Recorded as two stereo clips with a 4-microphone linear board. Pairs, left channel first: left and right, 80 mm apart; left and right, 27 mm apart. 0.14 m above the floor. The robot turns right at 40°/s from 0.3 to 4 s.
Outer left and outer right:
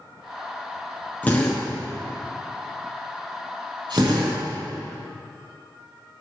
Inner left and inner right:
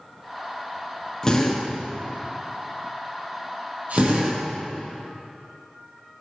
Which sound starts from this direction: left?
A drill, at 1.2 s.